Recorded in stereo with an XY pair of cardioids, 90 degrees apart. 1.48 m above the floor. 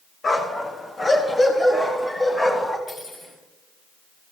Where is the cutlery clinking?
60° left, 5.5 m.